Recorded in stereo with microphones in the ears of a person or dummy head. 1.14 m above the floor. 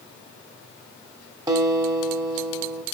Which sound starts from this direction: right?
A guitar, at 1.5 s.